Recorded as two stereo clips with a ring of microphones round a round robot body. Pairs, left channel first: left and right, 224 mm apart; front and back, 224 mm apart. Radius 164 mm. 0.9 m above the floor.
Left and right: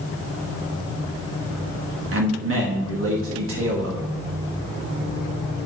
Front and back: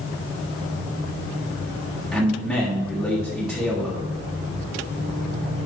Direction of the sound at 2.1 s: 90° right.